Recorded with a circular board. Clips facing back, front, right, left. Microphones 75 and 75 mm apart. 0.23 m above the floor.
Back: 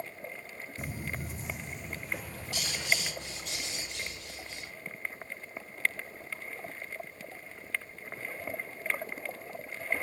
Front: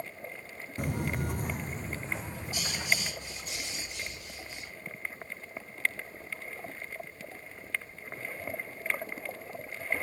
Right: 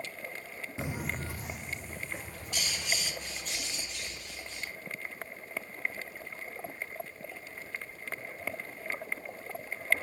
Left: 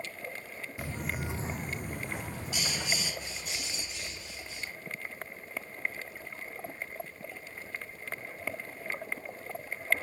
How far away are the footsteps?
About 0.5 m.